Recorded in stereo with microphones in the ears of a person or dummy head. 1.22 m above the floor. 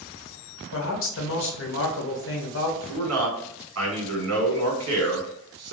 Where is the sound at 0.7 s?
60° left (ahead or behind), 1.1 m.